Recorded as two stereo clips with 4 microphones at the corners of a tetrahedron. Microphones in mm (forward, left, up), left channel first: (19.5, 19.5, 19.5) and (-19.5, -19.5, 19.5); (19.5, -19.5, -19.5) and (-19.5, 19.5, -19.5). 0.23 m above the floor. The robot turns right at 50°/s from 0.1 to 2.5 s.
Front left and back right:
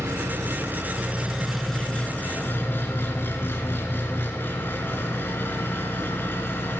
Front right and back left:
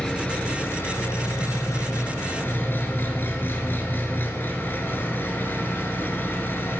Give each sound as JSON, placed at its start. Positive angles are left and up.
{"t": 0.0, "sound": "an engine running", "azimuth_deg": -120, "distance_m": 1.2}